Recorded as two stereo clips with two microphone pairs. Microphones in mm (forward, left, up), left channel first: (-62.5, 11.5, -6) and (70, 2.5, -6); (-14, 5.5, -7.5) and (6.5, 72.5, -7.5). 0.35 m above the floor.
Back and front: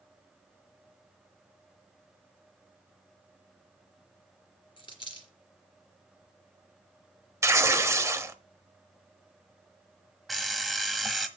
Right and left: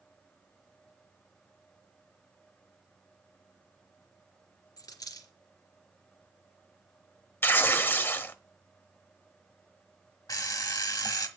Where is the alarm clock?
95° right, 1.3 m.